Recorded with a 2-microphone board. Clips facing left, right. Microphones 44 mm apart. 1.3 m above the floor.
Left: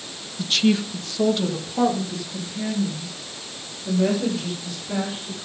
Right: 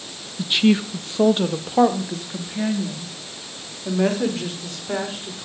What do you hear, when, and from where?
0.4 s a woman speaking: 15° right (ahead or behind), 1.0 m; by 5.5 s 55° right (ahead or behind), 5 m